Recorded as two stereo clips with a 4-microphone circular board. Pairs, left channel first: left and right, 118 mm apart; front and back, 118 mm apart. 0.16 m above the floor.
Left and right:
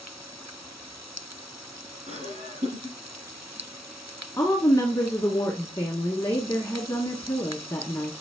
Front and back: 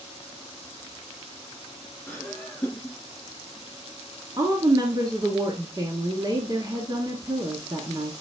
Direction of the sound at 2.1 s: 75° right.